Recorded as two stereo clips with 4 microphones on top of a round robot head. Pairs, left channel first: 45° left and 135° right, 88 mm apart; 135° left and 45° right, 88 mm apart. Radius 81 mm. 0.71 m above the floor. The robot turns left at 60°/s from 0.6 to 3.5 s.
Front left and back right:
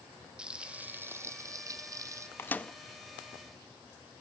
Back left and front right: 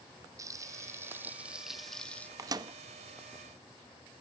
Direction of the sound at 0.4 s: 60° right.